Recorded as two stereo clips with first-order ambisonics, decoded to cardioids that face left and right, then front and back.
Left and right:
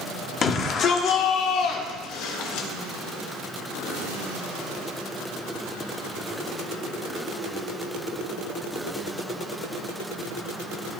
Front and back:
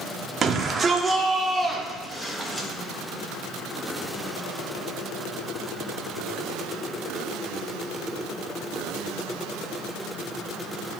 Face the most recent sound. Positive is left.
turn(degrees=80)